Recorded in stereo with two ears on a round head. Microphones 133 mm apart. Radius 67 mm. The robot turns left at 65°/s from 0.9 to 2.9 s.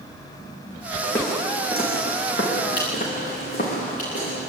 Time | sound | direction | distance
1.0 | footsteps | 5° left (ahead or behind) | 7 m